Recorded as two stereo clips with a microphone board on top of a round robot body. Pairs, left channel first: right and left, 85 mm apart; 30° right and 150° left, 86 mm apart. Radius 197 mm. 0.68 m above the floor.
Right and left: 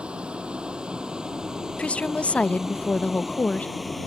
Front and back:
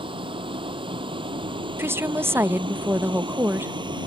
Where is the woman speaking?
160° right.